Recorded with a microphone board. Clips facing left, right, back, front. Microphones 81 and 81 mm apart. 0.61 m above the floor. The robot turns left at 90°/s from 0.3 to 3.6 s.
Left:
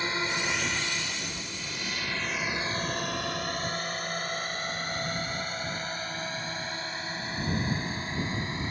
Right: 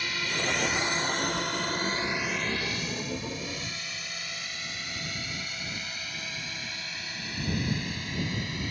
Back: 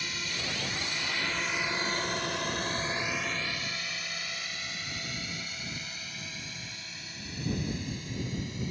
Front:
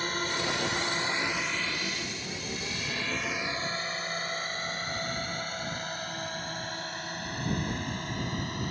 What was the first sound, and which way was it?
A drone, 35° left.